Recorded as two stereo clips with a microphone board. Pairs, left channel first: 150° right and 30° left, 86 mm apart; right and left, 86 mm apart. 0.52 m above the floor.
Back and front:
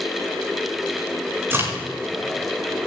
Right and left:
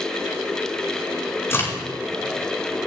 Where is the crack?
30° right, 5 m.